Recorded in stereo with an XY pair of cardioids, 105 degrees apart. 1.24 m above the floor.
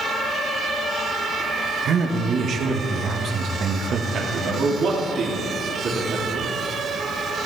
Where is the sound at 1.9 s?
60° right, 1.7 m.